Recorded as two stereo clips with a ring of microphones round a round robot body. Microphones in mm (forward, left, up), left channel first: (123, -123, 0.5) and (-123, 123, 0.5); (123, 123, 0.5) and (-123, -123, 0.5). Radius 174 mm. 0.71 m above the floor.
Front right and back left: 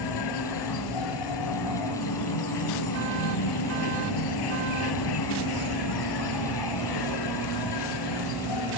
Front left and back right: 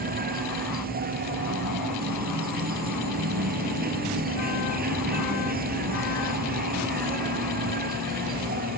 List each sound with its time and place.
0.0 s an insect: 70° right